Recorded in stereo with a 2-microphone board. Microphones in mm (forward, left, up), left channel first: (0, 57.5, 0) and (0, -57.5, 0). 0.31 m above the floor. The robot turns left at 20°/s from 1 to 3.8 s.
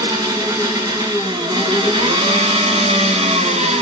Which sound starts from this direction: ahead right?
An engine running, at 0.0 s.